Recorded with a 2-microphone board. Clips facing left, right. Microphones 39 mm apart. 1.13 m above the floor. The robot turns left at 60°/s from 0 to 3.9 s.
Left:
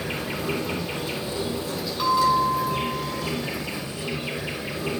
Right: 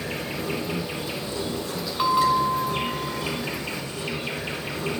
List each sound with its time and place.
0.0 s an insect: 110° left, 3.5 m; by 5.0 s 125° right, 3.5 m
2.0 s a bell: 25° right, 1.4 m; by 3.3 s 100° right, 1.4 m